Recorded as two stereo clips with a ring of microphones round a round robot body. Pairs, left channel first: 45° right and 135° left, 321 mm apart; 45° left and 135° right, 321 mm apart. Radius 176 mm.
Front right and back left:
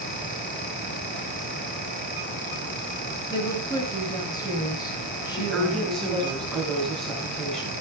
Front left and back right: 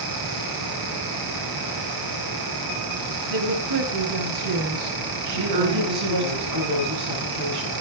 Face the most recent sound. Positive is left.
turn(degrees=-135)